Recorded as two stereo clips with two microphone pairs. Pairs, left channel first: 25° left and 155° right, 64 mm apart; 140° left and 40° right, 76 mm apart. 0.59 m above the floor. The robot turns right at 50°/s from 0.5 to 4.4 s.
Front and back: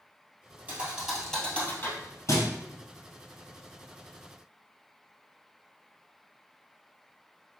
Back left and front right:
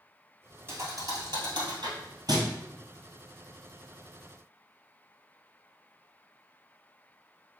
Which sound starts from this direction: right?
A thud, at 0.7 s.